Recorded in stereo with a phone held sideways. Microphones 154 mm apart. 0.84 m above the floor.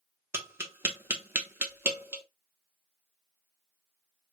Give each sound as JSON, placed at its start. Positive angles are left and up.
{"t": 0.3, "sound": "tapping", "side_deg": -15, "distance_m": 0.9}